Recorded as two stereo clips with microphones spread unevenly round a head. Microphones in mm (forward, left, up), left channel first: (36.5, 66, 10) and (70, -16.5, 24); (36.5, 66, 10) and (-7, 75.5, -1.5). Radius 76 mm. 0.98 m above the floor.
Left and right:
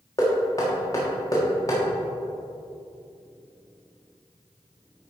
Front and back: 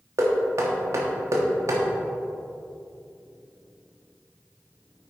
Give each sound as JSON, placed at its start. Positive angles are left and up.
{"t": 0.2, "sound": "knocking", "azimuth_deg": 180, "distance_m": 1.2}